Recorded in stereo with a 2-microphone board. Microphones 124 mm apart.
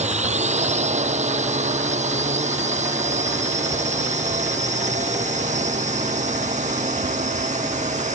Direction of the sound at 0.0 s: 65° right (ahead or behind).